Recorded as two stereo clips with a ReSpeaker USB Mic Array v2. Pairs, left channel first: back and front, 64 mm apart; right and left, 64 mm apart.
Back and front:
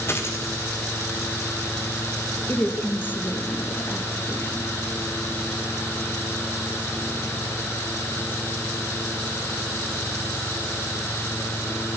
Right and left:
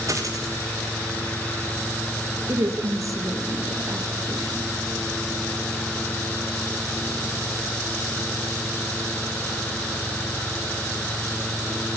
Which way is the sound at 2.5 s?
125° left.